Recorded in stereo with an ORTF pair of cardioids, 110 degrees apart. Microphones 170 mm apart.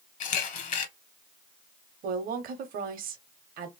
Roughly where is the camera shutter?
Ahead left.